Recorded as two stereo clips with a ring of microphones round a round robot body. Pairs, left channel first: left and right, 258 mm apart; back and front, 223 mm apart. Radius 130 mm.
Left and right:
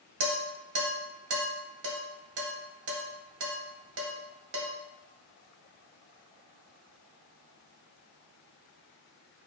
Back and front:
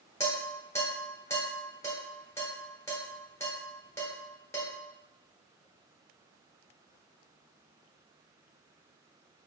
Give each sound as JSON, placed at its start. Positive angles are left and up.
{"t": 0.2, "sound": "dishes clattering", "azimuth_deg": -105, "distance_m": 0.7}